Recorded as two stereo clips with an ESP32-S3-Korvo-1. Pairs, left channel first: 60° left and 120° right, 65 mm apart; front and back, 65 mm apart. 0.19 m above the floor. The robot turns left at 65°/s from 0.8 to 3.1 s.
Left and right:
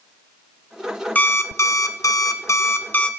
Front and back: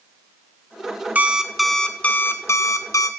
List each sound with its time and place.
1.1 s an alarm clock: 120° left, 1.0 m; by 3.1 s 5° right, 1.0 m